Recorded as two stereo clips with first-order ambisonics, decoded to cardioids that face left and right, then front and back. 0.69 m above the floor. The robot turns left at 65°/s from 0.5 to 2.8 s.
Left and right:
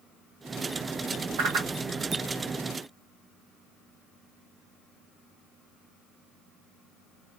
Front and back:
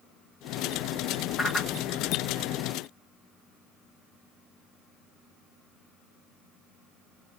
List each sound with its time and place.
1.4 s a whoosh: 75° right, 0.9 m; by 1.7 s 95° right, 0.9 m